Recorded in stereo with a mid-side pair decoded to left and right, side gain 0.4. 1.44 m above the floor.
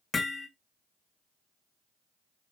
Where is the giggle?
I don't hear a giggle.